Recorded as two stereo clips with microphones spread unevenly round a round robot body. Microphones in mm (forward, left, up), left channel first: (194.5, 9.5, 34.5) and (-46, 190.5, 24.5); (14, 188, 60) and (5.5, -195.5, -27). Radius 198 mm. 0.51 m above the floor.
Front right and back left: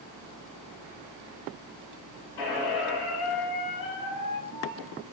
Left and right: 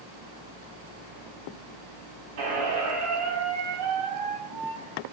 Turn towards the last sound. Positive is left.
turn(degrees=-50)